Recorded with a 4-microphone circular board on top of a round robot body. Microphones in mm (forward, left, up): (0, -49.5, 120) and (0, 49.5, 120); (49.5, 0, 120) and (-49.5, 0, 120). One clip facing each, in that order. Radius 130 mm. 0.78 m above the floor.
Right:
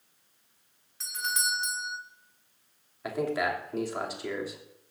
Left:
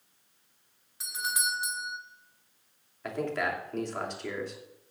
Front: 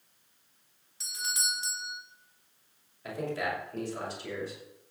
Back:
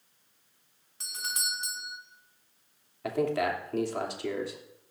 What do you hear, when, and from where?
1.0 s a doorbell: 170° left, 2 m
3.0 s a man speaking: 175° right, 3 m